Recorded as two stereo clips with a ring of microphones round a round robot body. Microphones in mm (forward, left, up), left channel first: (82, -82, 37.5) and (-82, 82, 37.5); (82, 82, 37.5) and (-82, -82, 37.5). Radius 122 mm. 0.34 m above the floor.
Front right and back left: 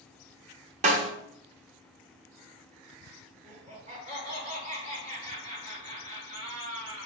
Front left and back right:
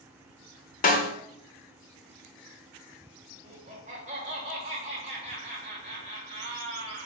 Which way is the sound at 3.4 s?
Straight behind.